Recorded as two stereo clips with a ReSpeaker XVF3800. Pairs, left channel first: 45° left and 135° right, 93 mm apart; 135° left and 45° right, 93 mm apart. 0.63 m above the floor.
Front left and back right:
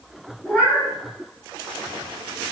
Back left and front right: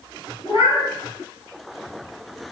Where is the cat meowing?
120° left, 1.4 m.